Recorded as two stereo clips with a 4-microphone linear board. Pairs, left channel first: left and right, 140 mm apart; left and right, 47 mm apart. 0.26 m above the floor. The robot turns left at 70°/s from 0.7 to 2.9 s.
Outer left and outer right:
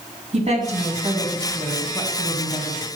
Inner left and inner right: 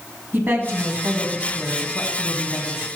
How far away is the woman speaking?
About 2.0 m.